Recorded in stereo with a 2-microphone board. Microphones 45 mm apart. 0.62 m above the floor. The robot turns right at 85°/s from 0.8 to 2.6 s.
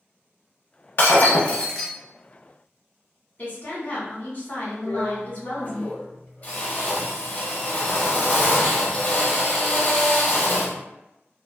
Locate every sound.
1.0 s breaking glass: 100° left, 0.6 m; by 1.9 s straight behind, 0.6 m
3.4 s a woman speaking: 40° left (ahead or behind), 1.3 m
4.8 s a drill: 35° left (ahead or behind), 0.9 m